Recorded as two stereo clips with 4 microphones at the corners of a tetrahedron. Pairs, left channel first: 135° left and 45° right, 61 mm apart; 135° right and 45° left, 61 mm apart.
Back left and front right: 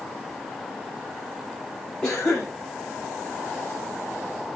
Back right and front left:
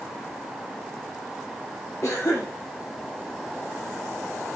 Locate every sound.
2.0 s a cough: 145° right, 2 m